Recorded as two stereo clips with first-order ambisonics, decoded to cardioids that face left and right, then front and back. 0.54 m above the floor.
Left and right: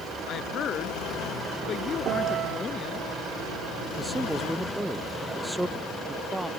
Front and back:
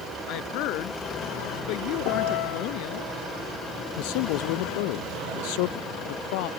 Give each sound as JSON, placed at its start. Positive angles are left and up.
{"t": 0.3, "sound": "a woman speaking", "azimuth_deg": 35}
{"t": 2.0, "sound": "a piano", "azimuth_deg": -35}
{"t": 4.0, "sound": "a man speaking", "azimuth_deg": 0}